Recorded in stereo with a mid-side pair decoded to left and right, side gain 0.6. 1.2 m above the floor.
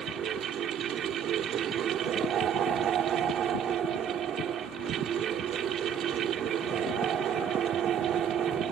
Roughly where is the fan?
Ahead right.